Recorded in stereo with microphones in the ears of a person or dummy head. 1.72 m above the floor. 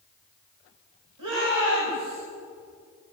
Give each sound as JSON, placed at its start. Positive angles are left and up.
{"t": 1.2, "sound": "a shout", "side_deg": -85, "distance_m": 8.5}